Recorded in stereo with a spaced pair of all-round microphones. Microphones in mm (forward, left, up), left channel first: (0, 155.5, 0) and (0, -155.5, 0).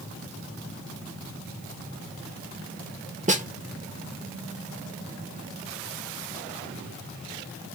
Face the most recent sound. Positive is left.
turn(degrees=-25)  # may be behind; listen again after turning